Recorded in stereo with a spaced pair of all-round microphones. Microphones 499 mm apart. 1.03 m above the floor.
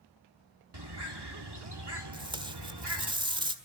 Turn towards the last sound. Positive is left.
turn(degrees=-10)  # may be behind; listen again after turning